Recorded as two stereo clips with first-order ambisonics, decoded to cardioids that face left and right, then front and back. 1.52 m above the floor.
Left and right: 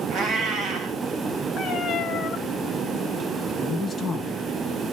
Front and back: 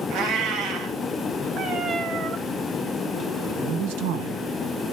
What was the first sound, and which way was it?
A cat meowing, 140° right.